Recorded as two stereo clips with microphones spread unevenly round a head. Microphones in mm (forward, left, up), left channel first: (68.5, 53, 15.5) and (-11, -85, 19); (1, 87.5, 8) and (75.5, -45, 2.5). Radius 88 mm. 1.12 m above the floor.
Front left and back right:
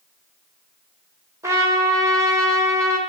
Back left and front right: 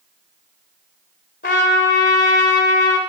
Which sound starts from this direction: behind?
A trumpet, at 1.4 s.